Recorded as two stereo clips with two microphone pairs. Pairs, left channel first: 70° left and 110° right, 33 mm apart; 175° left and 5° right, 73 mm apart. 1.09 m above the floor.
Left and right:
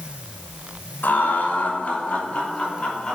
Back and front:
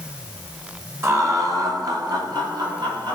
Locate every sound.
1.0 s laughter: 50° left, 2 m; by 3.2 s 5° left, 3 m